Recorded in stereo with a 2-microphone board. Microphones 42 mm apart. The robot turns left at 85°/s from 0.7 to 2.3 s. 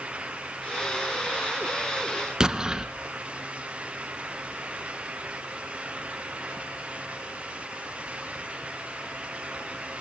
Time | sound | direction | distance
2.4 | an explosion | 15° right (ahead or behind) | 1.1 m